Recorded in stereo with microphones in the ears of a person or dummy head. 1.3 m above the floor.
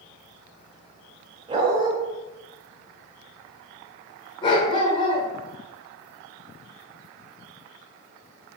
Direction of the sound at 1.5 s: 20° right (ahead or behind).